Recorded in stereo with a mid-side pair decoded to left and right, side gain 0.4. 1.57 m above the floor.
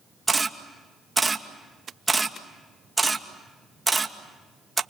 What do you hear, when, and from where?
0.3 s a camera shutter: 20° right, 2 m